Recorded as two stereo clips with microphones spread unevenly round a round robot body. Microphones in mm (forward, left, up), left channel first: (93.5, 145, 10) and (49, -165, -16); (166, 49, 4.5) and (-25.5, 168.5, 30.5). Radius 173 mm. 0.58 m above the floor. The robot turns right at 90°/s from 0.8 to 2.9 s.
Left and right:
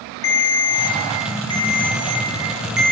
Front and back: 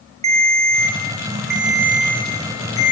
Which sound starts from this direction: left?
A ringtone, at 0.2 s.